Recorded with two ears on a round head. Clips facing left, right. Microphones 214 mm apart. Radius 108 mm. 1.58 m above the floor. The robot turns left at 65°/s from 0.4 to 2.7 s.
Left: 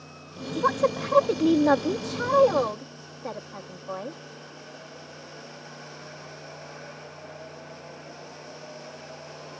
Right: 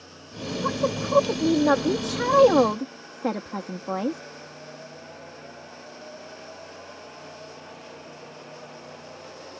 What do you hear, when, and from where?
0.6 s a woman speaking: 70° left; by 4.2 s 70° right